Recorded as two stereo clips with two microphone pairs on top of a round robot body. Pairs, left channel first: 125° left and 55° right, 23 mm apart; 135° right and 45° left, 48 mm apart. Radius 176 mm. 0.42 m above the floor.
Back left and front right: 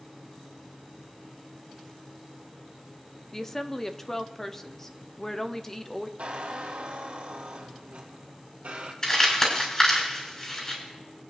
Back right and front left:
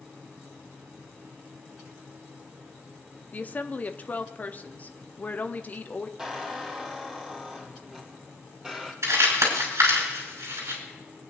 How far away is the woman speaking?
About 0.9 m.